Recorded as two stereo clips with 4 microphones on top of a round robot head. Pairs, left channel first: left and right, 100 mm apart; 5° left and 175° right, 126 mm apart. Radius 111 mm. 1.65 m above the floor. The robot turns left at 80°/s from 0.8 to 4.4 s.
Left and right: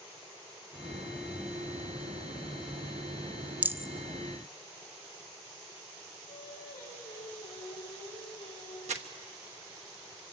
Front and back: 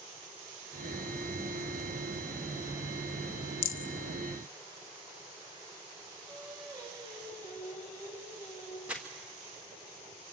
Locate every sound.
3.6 s a rattle: 15° right, 0.7 m; by 3.9 s 40° right, 0.7 m
6.3 s singing: 120° left, 4.5 m
8.9 s crumpling: 95° right, 1.2 m